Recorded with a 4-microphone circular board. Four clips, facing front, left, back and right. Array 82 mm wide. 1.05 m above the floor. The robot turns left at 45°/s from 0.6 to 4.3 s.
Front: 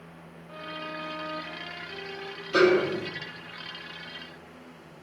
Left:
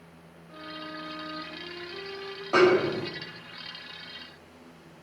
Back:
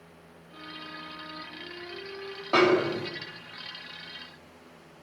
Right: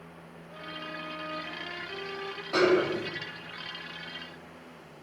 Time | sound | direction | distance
0.5 | a violin | 20° right | 6 m
2.5 | a snare drum | 160° left | 7 m